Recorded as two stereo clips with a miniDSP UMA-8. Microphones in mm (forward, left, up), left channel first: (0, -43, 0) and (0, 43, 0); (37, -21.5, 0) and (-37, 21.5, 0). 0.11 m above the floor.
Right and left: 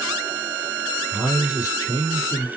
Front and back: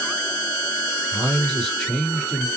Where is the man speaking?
110° right, 1.7 m.